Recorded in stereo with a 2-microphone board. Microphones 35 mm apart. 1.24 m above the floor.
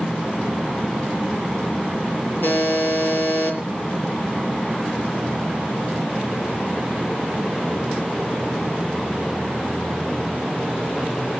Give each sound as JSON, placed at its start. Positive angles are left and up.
{"t": 2.4, "sound": "a buzzer", "side_deg": 75, "distance_m": 5.5}